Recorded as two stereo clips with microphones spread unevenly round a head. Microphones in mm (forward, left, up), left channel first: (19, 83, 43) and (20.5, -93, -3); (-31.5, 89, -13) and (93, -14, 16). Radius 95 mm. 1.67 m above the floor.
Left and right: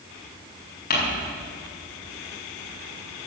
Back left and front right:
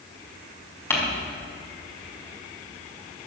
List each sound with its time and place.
0.9 s crumpling: 65° left, 5 m